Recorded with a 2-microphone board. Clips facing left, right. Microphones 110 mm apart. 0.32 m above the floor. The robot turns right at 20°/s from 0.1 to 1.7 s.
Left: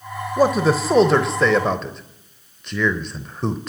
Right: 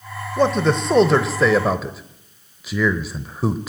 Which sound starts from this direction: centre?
A man speaking, at 0.4 s.